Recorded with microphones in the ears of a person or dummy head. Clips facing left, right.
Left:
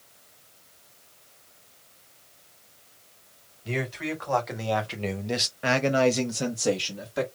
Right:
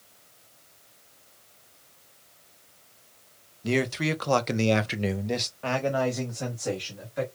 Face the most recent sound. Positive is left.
turn(degrees=60)  # may be behind; listen again after turning